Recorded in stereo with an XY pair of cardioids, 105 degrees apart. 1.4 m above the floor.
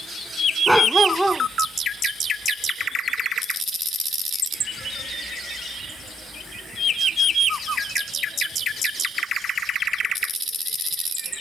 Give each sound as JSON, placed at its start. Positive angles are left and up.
{"t": 0.7, "sound": "a dog barking", "azimuth_deg": -10}